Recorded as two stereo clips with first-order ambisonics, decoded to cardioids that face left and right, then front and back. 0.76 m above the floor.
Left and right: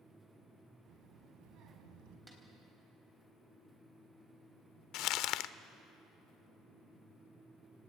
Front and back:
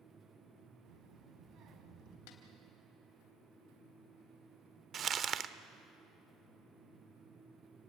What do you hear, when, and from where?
0.8 s a child speaking: 140° right, 4.5 m; by 2.2 s 125° right, 4.5 m
2.3 s a snare drum: 10° right, 4 m
4.9 s crumpling: 120° left, 0.7 m